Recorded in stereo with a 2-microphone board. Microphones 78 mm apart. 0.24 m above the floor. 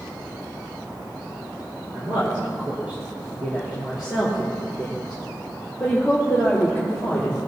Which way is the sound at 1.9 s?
25° right (ahead or behind).